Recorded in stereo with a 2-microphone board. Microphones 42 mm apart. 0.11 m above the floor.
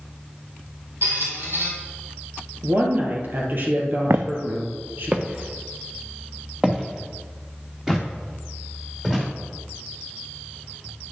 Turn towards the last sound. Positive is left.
turn(degrees=-10)  # may be behind; listen again after turning